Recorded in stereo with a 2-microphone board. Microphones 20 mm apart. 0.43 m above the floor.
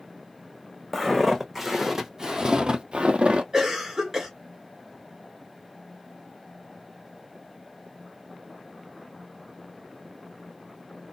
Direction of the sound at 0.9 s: 10° right (ahead or behind).